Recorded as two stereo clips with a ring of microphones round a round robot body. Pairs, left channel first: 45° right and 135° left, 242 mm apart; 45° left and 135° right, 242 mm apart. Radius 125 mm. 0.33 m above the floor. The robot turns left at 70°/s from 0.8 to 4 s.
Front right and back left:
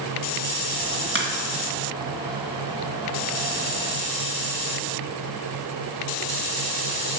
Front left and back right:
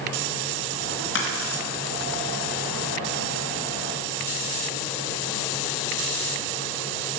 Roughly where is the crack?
Left.